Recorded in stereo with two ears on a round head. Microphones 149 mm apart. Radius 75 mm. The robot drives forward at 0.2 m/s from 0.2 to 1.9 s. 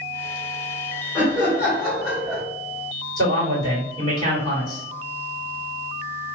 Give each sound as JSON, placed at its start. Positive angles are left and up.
{"t": 1.1, "sound": "laughter", "side_deg": -5, "distance_m": 1.4}
{"t": 3.2, "sound": "a man speaking", "side_deg": 25, "distance_m": 1.9}